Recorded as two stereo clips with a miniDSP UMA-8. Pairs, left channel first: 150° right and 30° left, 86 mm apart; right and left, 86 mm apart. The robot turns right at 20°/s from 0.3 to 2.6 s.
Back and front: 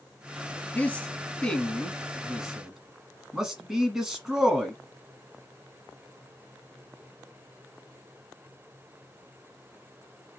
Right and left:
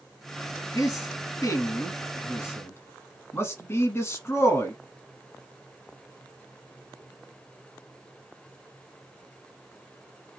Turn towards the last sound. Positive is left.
turn(degrees=-55)